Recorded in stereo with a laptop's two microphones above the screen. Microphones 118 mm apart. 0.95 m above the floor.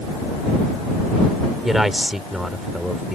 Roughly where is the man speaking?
Centre.